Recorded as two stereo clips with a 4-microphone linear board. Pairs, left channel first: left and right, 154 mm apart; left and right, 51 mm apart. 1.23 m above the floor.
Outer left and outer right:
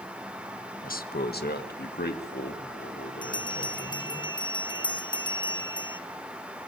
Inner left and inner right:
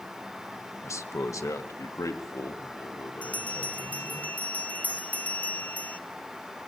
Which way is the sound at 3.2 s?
30° left (ahead or behind).